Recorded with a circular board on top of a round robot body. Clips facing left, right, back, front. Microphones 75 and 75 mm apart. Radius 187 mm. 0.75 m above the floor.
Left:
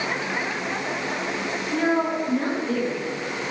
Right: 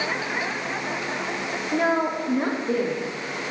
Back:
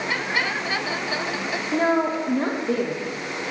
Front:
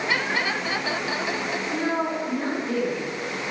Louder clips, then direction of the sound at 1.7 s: Even, back 6 dB; 145° right.